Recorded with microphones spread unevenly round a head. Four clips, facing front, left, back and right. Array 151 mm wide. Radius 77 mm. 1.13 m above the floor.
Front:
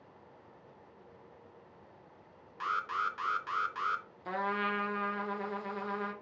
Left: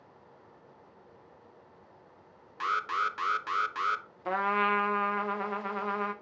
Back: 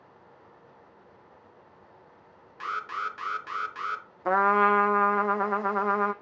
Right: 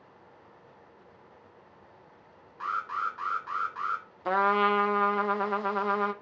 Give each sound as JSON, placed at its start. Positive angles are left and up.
{"t": 2.6, "sound": "an alarm", "azimuth_deg": 105, "distance_m": 0.9}
{"t": 4.2, "sound": "a trumpet", "azimuth_deg": -160, "distance_m": 0.6}